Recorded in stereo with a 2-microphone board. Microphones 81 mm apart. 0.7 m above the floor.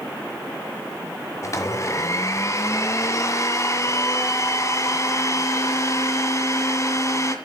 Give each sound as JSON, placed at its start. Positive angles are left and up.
{"t": 1.4, "sound": "a blender", "side_deg": 40, "distance_m": 1.5}